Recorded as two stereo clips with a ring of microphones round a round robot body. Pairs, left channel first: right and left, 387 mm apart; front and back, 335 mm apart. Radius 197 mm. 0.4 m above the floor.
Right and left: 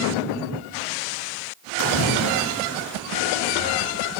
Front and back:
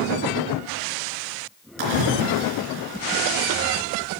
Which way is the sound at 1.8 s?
145° right.